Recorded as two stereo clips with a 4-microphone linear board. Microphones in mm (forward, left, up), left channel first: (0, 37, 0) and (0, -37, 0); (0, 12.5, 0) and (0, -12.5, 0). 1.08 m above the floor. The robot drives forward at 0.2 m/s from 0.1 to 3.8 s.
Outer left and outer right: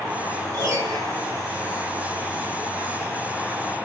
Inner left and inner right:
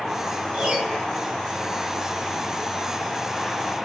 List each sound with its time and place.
0.5 s a piano: 45° right (ahead or behind), 1.5 m; by 1.0 s 50° right (ahead or behind), 1.4 m